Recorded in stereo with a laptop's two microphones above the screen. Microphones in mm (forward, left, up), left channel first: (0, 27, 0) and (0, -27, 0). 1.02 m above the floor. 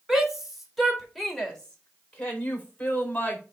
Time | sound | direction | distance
0.1 | a shout | 5° right (ahead or behind) | 4 m